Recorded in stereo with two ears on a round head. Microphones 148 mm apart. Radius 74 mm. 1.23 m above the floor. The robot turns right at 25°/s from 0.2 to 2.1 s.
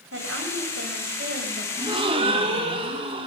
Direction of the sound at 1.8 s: 25° right (ahead or behind).